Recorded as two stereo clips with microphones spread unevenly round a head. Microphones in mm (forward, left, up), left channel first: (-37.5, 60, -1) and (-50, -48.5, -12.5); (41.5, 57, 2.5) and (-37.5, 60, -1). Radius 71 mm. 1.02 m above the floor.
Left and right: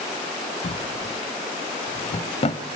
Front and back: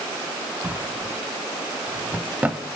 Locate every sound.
0.6 s a drawer: 105° left, 1.5 m